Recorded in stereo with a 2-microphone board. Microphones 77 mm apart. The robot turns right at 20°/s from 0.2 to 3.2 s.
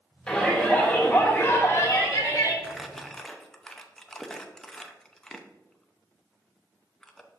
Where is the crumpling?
5° right (ahead or behind), 0.6 m; by 7.3 s 5° left (ahead or behind), 0.6 m.